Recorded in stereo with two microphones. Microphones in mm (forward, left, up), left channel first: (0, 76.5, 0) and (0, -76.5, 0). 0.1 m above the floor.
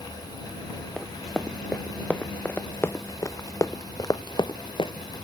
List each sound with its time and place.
1.0 s running footsteps: centre (ahead or behind); by 4.9 s 35° left (ahead or behind)